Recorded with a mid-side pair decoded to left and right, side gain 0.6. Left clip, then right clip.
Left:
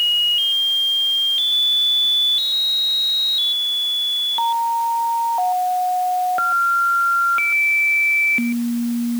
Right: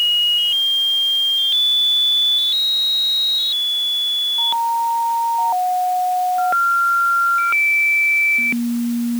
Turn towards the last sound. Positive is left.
No sound to turn to.